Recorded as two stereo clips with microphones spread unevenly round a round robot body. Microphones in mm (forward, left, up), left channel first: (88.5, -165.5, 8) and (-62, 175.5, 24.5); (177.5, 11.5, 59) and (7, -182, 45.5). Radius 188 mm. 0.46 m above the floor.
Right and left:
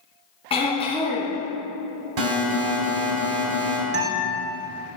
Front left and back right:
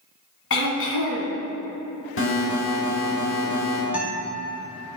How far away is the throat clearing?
About 1.9 m.